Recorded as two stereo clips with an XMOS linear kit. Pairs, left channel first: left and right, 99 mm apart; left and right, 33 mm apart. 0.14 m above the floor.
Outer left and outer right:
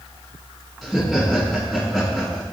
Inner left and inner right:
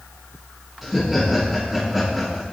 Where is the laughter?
Centre (ahead or behind), 1.7 m.